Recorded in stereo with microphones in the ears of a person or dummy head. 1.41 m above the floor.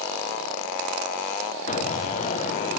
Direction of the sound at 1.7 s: 35° left (ahead or behind).